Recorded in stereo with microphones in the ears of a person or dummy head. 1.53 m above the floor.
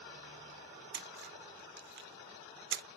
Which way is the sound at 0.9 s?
55° right (ahead or behind).